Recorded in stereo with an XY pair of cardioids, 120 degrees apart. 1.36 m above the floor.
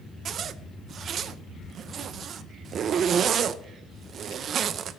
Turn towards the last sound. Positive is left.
turn(degrees=-50)